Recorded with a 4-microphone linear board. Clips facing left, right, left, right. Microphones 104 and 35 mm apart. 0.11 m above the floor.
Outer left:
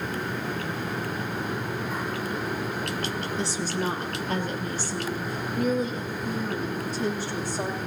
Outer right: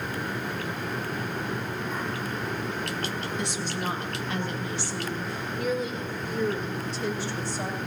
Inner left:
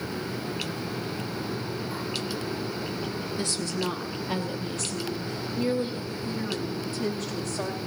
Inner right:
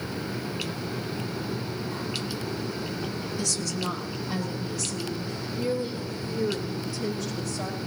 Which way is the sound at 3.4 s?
30° left (ahead or behind).